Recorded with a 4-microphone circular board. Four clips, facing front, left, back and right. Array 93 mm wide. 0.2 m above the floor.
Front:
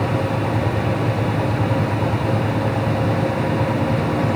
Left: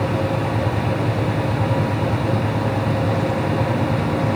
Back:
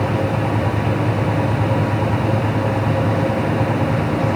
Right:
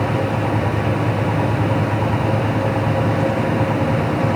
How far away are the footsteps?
No footsteps in this recording.